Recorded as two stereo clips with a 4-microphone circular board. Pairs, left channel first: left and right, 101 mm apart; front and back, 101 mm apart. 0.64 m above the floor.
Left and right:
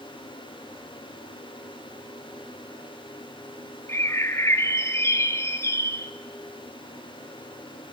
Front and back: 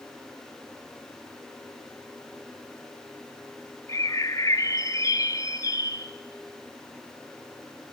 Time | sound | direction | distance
3.9 | a bird | 40° left | 0.6 m